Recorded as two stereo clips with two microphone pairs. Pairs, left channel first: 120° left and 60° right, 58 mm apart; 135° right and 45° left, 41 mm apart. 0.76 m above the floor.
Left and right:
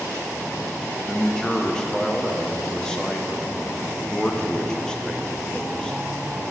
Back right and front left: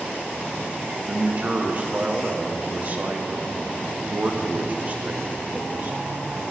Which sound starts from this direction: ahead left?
A man speaking, at 1.1 s.